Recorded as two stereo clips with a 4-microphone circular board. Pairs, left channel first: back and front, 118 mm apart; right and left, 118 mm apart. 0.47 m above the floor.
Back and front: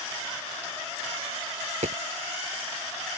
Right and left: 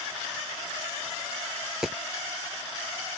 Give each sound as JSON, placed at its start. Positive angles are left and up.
{"t": 1.6, "sound": "a dropped coin", "azimuth_deg": 5}